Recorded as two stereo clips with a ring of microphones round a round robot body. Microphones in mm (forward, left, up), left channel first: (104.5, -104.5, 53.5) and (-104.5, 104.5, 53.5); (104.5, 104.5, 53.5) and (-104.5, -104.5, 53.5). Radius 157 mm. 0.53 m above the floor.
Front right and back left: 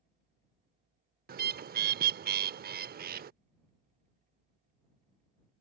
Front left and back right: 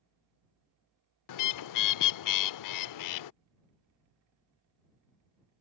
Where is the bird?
75° left.